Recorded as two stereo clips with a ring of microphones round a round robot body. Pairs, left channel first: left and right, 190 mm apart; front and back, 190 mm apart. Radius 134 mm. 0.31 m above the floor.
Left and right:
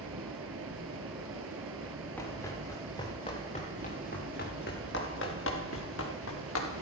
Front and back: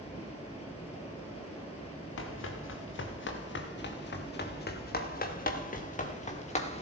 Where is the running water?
70° right, 2 m.